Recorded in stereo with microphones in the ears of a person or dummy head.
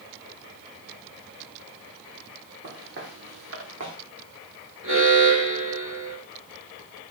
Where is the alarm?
85° right, 6.5 m.